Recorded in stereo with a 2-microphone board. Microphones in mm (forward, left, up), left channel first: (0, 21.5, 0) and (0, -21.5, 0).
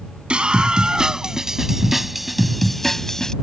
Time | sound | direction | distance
0.3 | a scream | 25° right (ahead or behind) | ?